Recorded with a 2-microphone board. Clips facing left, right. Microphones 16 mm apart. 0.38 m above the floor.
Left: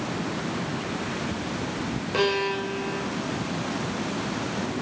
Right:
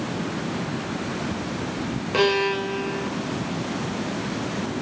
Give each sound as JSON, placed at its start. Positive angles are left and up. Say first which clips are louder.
{"t": 2.1, "sound": "a violin", "louder": "right 4 dB", "side_deg": -15, "distance_m": 0.9}